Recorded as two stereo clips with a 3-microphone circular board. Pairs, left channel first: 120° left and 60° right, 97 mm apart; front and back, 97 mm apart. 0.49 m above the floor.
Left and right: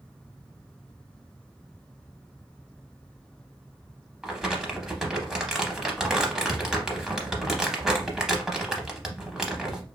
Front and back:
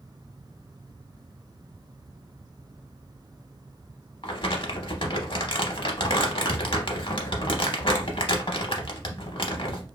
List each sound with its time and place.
4.2 s crumpling: 25° left, 0.6 m